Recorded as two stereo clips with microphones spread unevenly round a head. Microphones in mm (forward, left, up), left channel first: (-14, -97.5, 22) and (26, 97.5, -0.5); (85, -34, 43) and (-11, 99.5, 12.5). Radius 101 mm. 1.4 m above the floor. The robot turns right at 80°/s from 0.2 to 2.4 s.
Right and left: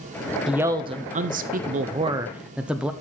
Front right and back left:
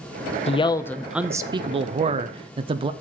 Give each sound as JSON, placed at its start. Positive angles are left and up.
{"t": 0.5, "sound": "a man speaking", "azimuth_deg": 0, "distance_m": 0.5}